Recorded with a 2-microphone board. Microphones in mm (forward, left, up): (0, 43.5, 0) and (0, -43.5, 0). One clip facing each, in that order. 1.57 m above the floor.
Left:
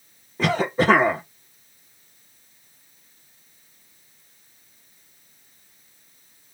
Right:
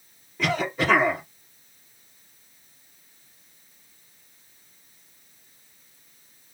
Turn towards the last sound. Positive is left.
turn(degrees=35)  # may be behind; listen again after turning